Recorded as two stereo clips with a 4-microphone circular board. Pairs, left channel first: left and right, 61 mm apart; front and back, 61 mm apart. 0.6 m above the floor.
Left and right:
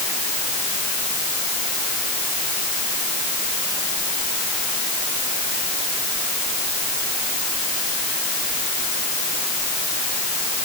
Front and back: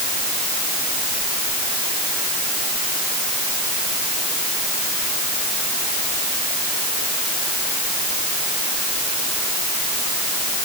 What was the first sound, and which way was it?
Only background noise.